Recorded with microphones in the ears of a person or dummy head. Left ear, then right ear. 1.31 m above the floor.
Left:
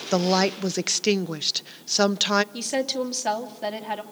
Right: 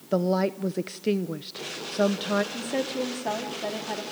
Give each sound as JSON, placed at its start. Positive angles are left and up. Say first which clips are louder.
{"t": 0.1, "sound": "a woman speaking", "louder": "left 3 dB", "side_deg": 45, "distance_m": 0.7}
{"t": 2.5, "sound": "a woman speaking", "louder": "left 3 dB", "side_deg": 40, "distance_m": 2.5}